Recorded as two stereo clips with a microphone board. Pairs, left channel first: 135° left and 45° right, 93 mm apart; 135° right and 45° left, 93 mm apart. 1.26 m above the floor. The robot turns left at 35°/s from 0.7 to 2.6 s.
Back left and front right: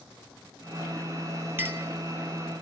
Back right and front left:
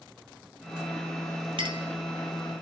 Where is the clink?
20° left, 2.5 m; by 1.9 s 10° left, 2.5 m.